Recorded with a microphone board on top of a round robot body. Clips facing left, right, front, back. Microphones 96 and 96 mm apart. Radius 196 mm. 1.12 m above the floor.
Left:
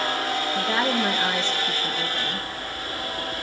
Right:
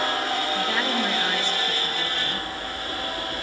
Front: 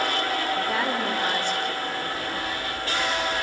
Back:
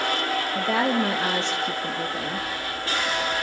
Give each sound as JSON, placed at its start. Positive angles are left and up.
{"t": 0.6, "sound": "a woman speaking", "azimuth_deg": 160, "distance_m": 2.0}